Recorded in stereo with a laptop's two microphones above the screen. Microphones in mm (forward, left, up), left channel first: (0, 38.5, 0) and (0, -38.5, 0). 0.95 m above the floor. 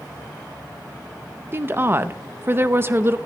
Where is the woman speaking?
30° right (ahead or behind), 0.6 m.